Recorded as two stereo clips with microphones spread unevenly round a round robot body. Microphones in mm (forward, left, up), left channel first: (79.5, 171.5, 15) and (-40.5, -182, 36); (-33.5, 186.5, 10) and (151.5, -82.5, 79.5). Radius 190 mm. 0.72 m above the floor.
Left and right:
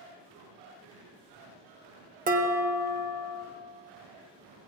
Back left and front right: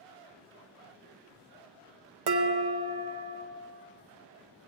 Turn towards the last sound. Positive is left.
turn(degrees=-40)